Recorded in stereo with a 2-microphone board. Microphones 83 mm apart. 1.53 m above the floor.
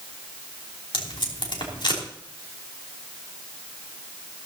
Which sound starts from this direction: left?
Tape being pulled, at 0.9 s.